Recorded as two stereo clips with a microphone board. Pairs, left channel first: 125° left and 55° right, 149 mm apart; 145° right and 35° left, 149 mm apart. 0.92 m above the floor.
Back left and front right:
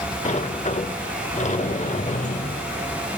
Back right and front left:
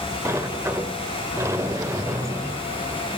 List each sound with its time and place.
0.2 s a sliding door: 105° left, 1.0 m